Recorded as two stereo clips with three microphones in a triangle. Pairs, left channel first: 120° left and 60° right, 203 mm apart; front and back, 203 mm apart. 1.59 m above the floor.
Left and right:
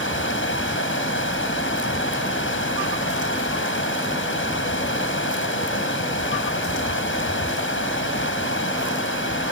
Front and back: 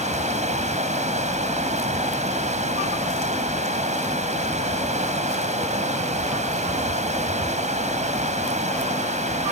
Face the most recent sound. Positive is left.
turn(degrees=125)